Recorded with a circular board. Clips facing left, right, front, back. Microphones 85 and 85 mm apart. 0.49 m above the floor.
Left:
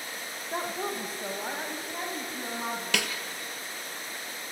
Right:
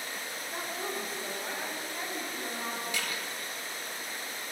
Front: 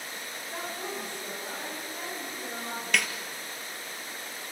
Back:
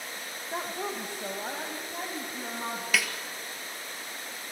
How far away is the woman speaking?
About 1.7 m.